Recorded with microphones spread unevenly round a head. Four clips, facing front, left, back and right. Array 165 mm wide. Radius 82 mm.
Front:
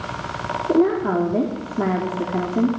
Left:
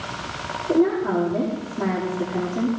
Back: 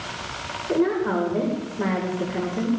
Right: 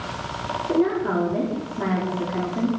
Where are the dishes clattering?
No dishes clattering in this recording.